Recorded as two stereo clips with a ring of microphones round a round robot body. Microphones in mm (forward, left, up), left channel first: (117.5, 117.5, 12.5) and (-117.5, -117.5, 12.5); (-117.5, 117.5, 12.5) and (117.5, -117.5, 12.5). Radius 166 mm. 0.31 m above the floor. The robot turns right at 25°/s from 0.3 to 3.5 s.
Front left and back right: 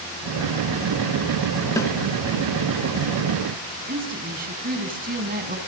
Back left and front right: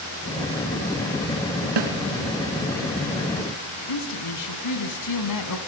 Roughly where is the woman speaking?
Behind.